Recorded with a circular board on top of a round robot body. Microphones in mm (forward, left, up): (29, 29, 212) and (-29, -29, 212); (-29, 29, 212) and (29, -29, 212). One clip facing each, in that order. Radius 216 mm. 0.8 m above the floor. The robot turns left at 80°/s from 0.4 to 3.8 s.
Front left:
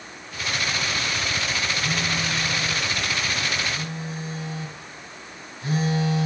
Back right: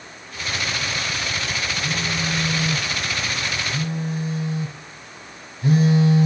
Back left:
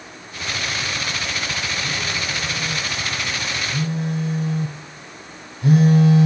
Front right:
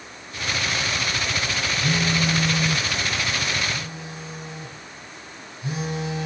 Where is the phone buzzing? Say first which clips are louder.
Back right 1 dB, front right 4 dB; 35° right, 9.5 m; by 6.3 s 165° left, 9.5 m.